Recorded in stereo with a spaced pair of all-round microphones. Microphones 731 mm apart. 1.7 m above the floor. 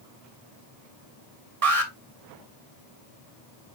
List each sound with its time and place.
1.6 s an alarm: 50° right (ahead or behind), 1.5 m